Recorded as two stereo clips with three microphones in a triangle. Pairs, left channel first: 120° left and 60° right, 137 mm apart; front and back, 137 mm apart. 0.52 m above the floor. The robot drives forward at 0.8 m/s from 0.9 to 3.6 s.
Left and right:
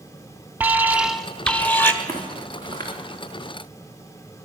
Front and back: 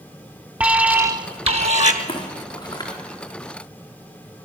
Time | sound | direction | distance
0.6 | an alarm | 115° right | 0.6 m
2.0 | footsteps | 55° left | 3.5 m